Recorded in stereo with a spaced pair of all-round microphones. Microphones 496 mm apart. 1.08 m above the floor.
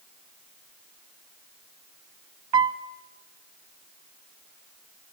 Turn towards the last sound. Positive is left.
turn(degrees=-60)  # may be behind; listen again after turning